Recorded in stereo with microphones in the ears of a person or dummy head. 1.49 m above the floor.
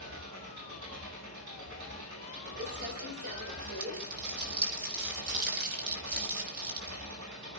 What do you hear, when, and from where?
0.0 s an engine running: 75° right (ahead or behind), 6.5 m
2.6 s crumpling: 55° right (ahead or behind), 5.5 m